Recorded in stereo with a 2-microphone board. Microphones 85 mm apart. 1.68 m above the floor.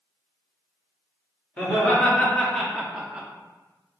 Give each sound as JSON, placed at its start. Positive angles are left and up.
{"t": 1.6, "sound": "laughter", "side_deg": 15, "distance_m": 1.5}